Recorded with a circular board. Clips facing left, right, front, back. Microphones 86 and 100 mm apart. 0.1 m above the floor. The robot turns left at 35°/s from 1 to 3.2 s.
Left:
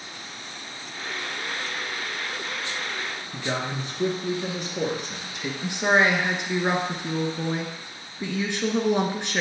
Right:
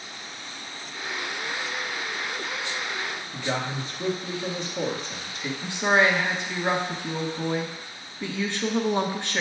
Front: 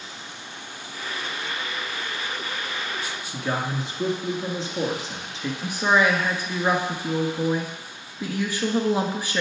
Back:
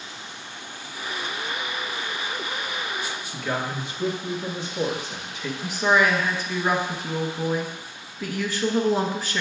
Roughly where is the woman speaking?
Ahead left.